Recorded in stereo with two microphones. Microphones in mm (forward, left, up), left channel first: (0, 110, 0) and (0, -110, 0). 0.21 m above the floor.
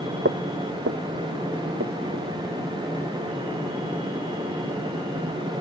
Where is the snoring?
I don't hear snoring.